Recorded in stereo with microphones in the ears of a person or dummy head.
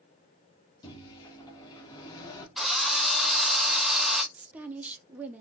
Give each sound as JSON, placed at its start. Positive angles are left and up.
{"t": 0.8, "sound": "a microwave", "side_deg": 20, "distance_m": 0.8}
{"t": 2.6, "sound": "a drill", "side_deg": 0, "distance_m": 0.6}
{"t": 4.3, "sound": "a woman speaking", "side_deg": -10, "distance_m": 0.6}